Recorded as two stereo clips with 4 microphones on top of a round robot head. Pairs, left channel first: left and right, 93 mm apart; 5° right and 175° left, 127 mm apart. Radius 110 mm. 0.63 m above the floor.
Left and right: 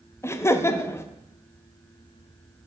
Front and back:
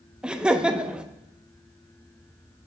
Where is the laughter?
100° left, 0.7 m.